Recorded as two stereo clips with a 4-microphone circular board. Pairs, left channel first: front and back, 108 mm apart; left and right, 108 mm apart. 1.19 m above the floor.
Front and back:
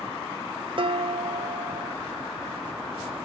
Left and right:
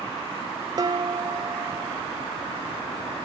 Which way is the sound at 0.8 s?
140° right.